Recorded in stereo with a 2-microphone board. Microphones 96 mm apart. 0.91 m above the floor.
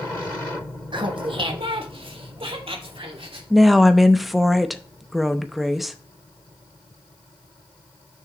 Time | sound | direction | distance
0.9 | laughter | 55° right (ahead or behind) | 1.2 m
3.5 | a woman speaking | centre (ahead or behind) | 0.7 m